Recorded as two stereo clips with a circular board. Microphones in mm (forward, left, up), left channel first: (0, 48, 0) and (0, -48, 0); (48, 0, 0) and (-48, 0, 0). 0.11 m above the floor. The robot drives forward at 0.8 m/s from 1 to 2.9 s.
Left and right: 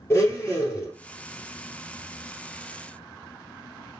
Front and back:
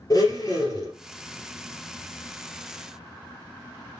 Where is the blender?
35° left, 2.5 m.